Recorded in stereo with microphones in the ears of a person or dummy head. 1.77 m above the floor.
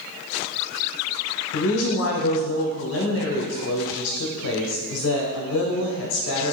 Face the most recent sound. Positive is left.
turn(degrees=70)  # may be behind; listen again after turning